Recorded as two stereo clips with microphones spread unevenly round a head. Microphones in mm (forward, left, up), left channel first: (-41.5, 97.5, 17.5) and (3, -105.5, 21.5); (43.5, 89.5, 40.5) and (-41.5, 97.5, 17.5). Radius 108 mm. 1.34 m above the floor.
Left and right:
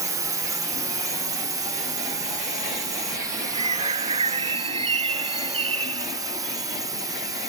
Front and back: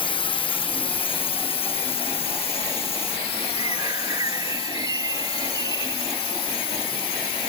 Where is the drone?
5° right.